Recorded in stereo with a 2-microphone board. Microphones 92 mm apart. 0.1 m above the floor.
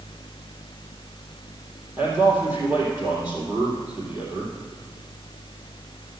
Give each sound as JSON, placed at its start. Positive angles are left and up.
{"t": 2.0, "sound": "a man speaking", "side_deg": -15, "distance_m": 3.5}